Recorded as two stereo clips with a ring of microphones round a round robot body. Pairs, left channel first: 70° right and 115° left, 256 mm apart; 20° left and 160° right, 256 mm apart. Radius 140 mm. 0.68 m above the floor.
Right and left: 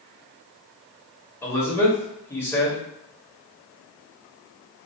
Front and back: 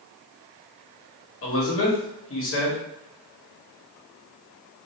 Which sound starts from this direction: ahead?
A man speaking, at 1.4 s.